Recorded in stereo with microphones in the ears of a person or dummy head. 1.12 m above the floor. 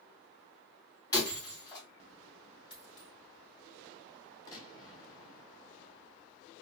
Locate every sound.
1.1 s breaking glass: 20° left (ahead or behind), 2.5 m
2.7 s a dropped coin: 35° left (ahead or behind), 2.5 m
4.5 s a gunshot: 20° left (ahead or behind), 1.2 m